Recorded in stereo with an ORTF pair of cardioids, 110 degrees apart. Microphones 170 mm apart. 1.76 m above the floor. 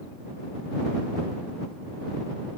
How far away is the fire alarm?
I don't hear a fire alarm.